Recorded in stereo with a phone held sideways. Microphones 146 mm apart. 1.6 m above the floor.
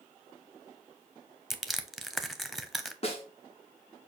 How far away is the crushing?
About 0.5 m.